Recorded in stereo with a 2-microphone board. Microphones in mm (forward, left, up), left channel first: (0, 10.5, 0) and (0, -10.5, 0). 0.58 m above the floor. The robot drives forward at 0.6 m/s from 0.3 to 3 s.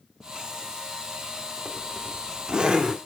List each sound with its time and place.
1.6 s a zipper: 40° right (ahead or behind), 1.2 m; by 3.0 s 50° right (ahead or behind), 1.0 m